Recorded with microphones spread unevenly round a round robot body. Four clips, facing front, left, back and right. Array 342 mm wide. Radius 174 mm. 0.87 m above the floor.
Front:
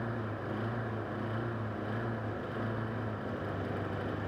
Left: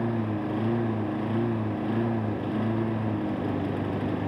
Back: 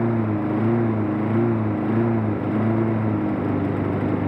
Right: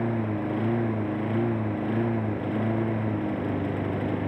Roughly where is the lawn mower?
Behind.